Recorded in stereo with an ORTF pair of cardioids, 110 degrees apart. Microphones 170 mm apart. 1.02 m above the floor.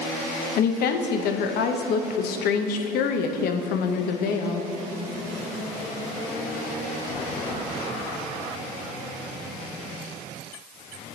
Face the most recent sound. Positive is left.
turn(degrees=70)